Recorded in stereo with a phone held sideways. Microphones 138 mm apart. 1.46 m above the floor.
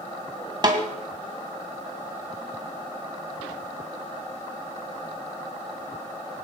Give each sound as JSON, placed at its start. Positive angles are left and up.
{"t": 0.6, "sound": "a snare drum", "side_deg": -30, "distance_m": 2.0}